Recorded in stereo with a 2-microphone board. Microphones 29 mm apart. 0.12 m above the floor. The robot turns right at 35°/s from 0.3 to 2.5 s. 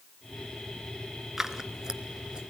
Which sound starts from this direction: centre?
Scissors, at 1.4 s.